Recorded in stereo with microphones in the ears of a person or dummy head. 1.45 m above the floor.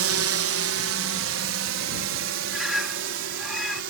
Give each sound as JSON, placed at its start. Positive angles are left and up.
{"t": 0.0, "sound": "a drone", "side_deg": -65}
{"t": 2.5, "sound": "a bird", "side_deg": 0}